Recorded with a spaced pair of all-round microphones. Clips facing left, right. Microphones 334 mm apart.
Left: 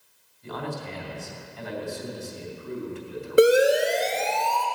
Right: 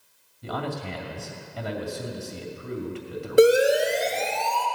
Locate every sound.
0.4 s a man speaking: 75° right (ahead or behind), 2 m
3.4 s a siren: 5° left (ahead or behind), 2.5 m; by 4.7 s 35° right (ahead or behind), 2.5 m